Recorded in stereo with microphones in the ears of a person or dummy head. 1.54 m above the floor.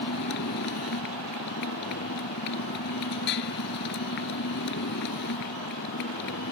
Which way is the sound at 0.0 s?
55° left (ahead or behind).